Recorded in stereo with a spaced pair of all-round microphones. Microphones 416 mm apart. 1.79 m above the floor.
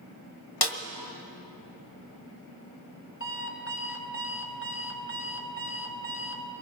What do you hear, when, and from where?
0.6 s a snare drum: 65° left (ahead or behind), 1.3 m
3.2 s an alarm clock: 30° left (ahead or behind), 1.9 m